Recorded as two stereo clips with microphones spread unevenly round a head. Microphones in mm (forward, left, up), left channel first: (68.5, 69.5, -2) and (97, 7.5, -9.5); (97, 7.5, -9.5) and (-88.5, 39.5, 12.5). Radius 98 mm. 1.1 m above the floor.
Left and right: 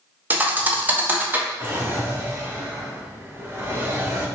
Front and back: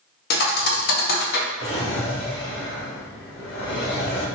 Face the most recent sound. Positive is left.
turn(degrees=-10)